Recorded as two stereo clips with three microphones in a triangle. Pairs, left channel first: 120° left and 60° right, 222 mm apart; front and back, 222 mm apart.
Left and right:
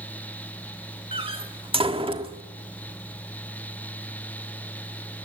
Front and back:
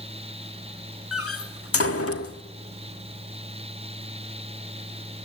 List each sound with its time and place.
1.1 s a door slam: 5° left, 1.5 m